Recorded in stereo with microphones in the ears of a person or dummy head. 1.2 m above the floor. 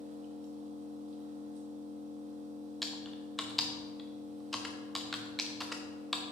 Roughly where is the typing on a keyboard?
Centre.